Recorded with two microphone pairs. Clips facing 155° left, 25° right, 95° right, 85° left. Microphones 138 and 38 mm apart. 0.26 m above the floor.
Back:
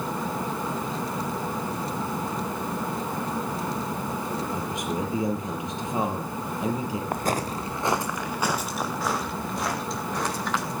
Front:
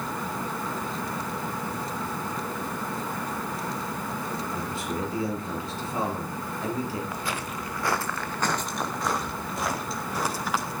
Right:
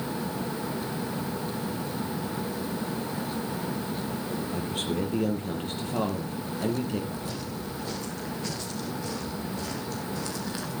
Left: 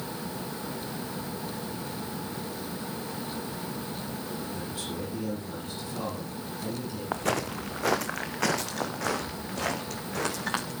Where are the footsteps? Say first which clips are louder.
Back 6 dB, left 5 dB; 120° left, 1.3 m; by 10.7 s 60° left, 6 m.